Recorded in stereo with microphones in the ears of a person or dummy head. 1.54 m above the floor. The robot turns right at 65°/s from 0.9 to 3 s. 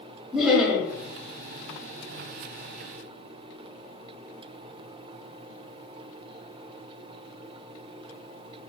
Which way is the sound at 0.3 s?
5° right (ahead or behind).